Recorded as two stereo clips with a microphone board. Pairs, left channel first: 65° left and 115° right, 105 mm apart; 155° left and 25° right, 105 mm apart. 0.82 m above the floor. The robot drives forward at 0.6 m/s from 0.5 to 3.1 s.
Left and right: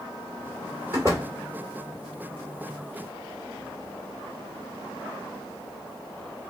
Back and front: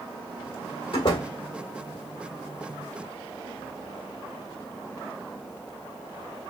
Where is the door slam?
175° right, 2 m.